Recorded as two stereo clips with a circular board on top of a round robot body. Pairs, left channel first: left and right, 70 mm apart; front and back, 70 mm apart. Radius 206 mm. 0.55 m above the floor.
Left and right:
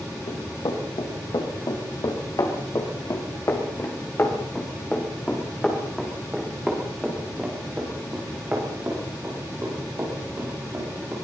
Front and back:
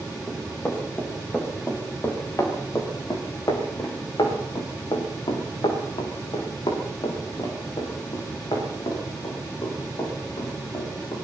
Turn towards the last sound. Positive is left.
turn(degrees=-35)